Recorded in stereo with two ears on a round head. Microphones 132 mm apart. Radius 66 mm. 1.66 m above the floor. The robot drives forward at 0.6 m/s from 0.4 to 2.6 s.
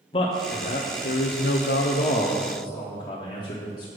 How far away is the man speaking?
About 0.8 m.